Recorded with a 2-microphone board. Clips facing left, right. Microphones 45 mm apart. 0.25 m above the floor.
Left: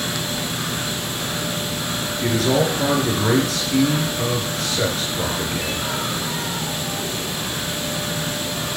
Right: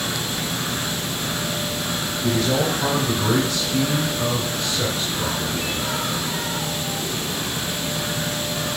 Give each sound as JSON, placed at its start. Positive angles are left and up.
{"t": 2.2, "sound": "a man speaking", "side_deg": 70, "distance_m": 3.0}